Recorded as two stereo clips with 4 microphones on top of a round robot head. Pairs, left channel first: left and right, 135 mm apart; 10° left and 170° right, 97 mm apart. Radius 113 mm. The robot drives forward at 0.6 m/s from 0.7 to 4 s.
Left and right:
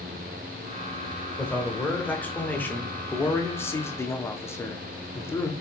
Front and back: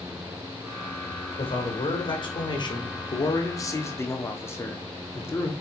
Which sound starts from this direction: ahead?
A man speaking, at 1.4 s.